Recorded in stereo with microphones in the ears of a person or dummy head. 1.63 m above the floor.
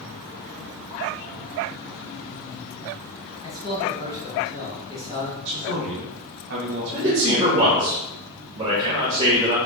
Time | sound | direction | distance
3.4 | a man speaking | 25° left (ahead or behind) | 1.5 m
5.5 | a man speaking | 55° right (ahead or behind) | 1.7 m
6.9 | a man speaking | 20° right (ahead or behind) | 1.2 m